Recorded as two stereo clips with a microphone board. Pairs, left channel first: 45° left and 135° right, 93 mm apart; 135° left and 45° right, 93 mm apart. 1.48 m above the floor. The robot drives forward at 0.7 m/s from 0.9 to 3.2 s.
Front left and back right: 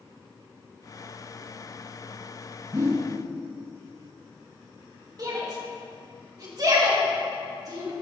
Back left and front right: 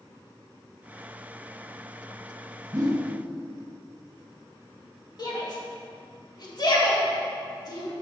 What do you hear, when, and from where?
2.7 s a whoosh: 85° right, 1.3 m; by 3.1 s 95° right, 1.3 m
5.2 s a shout: 175° left, 2.5 m